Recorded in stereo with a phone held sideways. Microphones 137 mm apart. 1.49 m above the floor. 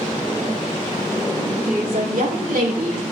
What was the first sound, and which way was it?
A woman speaking, 85° right.